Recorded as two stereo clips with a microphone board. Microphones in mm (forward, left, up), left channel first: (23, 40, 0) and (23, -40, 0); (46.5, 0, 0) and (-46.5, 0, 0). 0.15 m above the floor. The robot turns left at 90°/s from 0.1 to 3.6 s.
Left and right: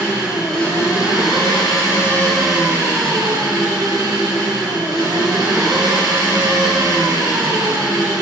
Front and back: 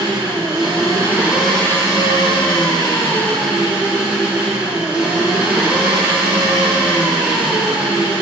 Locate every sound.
0.0 s an engine running: 150° right, 3 m; by 8.2 s 105° right, 3 m